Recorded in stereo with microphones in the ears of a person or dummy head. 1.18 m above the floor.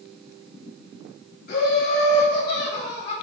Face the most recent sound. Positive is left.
turn(degrees=60)  # may be behind; listen again after turning